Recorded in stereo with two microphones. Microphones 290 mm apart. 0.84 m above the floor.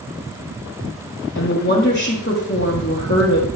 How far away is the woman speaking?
About 1.6 m.